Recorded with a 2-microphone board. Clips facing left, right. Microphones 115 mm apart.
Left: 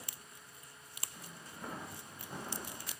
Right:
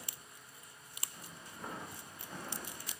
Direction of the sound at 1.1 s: 5° left (ahead or behind).